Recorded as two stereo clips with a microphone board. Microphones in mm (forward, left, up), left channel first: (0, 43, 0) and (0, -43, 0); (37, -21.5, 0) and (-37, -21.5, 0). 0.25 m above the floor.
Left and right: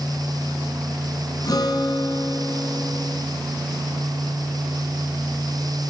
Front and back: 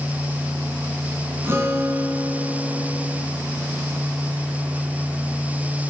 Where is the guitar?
125° left, 2 m.